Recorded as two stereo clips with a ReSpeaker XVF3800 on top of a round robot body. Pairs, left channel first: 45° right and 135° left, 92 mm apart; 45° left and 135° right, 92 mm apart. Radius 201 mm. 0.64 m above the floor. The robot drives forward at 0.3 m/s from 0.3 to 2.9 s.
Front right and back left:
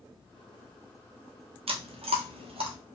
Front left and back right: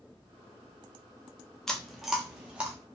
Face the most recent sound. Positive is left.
turn(degrees=150)